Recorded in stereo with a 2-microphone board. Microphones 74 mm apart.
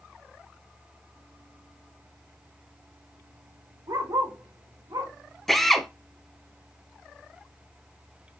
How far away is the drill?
About 0.7 m.